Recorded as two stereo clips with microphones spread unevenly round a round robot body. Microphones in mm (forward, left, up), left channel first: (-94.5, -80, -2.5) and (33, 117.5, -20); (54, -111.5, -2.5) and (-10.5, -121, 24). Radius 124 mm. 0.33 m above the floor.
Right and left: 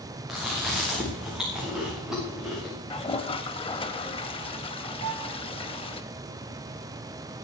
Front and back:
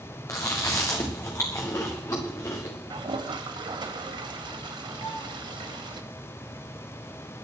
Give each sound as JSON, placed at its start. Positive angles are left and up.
{"t": 0.3, "sound": "chewing", "azimuth_deg": -30, "distance_m": 5.0}
{"t": 2.9, "sound": "a toilet flushing", "azimuth_deg": 170, "distance_m": 1.0}
{"t": 5.0, "sound": "a violin", "azimuth_deg": 70, "distance_m": 1.9}